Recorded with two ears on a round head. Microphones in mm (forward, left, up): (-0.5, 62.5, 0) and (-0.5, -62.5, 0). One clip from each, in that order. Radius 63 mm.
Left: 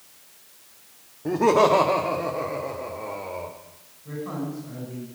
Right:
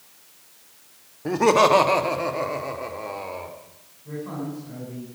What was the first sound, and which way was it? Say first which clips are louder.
Laughter: right 1 dB; 35° right (ahead or behind).